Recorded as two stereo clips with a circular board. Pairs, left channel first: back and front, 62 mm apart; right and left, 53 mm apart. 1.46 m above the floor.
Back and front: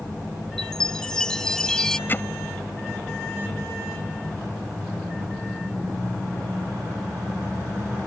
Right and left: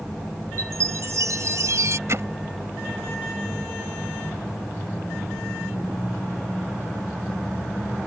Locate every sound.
0.6 s a chime: 100° left
2.1 s hammering: 125° left